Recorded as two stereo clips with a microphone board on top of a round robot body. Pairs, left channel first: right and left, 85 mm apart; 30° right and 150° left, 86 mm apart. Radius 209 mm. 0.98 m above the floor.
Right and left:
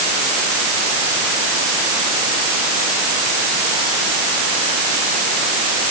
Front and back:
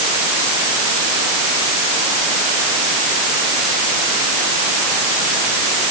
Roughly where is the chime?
I don't hear a chime.